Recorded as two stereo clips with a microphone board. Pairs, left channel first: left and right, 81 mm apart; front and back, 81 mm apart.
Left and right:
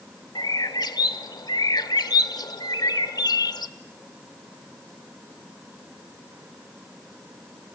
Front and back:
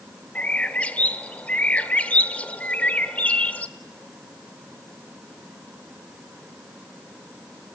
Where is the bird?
70° left, 0.8 m.